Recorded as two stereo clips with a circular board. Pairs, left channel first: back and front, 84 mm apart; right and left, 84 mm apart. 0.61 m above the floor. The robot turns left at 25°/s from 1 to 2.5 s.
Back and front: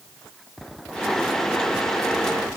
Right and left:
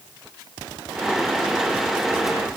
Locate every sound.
Only background noise.